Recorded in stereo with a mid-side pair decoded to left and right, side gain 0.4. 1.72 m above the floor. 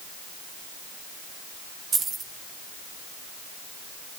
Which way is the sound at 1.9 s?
60° right.